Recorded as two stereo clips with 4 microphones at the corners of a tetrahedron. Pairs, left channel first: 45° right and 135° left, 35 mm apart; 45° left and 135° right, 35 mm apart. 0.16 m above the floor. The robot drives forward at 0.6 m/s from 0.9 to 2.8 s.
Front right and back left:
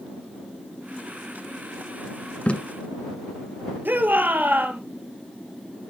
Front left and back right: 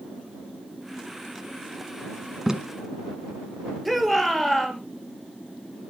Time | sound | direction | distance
2.5 | tape being pulled | 65° right | 1.2 m
3.9 | a shout | 135° left | 2.5 m